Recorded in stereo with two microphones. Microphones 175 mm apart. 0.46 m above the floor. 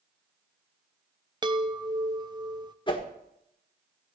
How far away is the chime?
About 0.6 m.